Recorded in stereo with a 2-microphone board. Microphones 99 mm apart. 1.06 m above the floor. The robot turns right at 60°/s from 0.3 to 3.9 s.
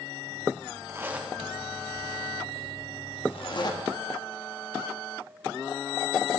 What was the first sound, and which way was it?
A zipper, 30° right (ahead or behind).